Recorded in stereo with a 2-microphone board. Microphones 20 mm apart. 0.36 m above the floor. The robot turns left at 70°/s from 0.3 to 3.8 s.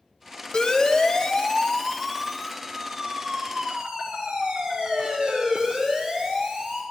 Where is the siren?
45° left (ahead or behind), 2 m; by 6.8 s 75° right (ahead or behind), 9 m.